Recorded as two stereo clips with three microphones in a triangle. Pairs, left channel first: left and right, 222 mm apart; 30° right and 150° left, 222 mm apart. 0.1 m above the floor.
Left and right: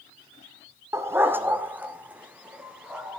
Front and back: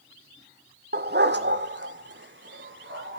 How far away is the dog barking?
About 1.0 m.